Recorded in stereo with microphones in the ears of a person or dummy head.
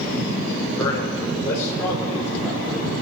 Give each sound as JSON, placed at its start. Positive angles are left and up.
{"t": 0.8, "sound": "a man speaking", "side_deg": 15, "distance_m": 4.0}